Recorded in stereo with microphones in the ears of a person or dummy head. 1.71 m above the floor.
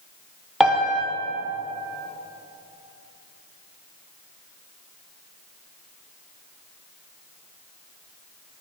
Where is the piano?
5° right (ahead or behind), 0.6 m.